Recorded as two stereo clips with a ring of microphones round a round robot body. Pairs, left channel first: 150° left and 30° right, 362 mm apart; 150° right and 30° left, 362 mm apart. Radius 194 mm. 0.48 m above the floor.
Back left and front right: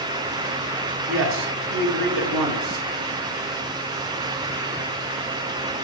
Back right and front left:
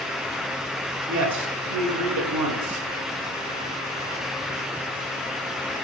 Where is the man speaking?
5° right, 3 m.